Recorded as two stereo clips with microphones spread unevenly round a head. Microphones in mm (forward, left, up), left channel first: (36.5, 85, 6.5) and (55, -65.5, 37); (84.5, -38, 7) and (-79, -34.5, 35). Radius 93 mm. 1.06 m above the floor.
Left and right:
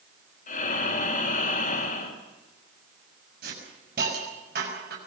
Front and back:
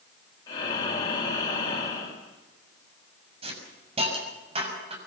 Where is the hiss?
125° right, 6.5 m.